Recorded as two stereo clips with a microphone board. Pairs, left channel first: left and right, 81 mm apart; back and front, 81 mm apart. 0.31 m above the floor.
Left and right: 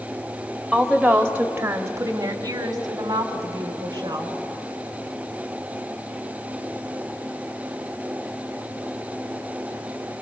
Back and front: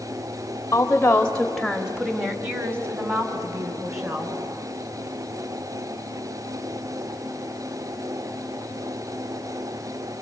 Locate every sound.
0.7 s a woman speaking: 175° left, 1.1 m; by 4.3 s 50° right, 3 m